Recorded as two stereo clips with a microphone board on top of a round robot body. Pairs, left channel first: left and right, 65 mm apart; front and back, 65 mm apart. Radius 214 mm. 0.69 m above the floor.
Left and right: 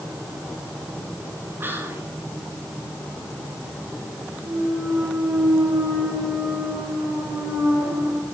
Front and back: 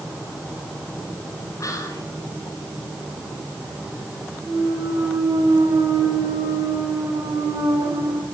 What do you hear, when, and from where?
1.6 s whispering: 30° right, 5 m
4.4 s a clunk: 150° right, 4.5 m